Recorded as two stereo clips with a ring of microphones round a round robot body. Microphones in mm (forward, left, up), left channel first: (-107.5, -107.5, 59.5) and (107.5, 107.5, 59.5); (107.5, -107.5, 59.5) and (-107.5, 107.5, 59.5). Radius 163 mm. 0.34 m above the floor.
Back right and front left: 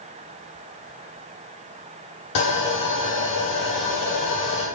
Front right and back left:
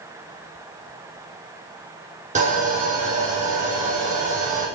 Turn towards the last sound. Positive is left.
turn(degrees=-160)